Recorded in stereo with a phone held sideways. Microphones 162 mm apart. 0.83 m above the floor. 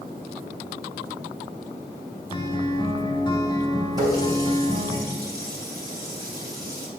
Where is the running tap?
25° right (ahead or behind), 3 m.